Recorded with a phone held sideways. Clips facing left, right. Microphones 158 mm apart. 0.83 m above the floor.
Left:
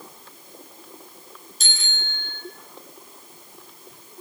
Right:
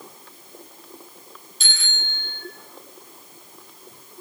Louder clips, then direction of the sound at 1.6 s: Right 1 dB; 40° left (ahead or behind).